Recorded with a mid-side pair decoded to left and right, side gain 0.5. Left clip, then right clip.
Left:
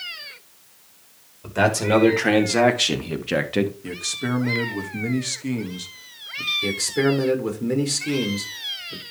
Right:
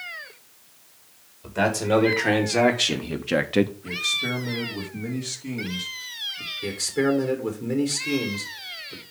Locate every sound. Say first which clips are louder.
1.4 s a man speaking: left 3 dB; 25° left, 3.5 m; by 3.7 s 25° right, 1.1 m
3.8 s a man speaking: right 3 dB; 35° left, 2.5 m
6.6 s a man speaking: right 2 dB; 20° left, 3 m